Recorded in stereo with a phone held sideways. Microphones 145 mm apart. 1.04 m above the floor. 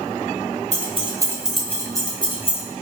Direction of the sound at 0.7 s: 50° right (ahead or behind).